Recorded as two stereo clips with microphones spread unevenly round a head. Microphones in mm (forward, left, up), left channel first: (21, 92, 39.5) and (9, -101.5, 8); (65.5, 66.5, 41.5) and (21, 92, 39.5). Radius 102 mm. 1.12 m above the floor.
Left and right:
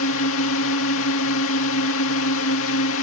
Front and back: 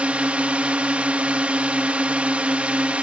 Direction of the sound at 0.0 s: 90° left.